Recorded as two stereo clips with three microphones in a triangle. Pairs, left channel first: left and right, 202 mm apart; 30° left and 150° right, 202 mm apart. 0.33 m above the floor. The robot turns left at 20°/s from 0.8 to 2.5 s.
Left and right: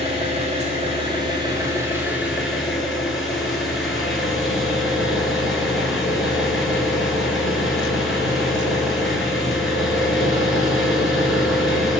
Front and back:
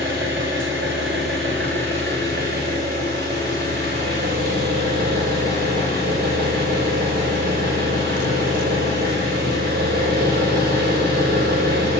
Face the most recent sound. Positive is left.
turn(degrees=180)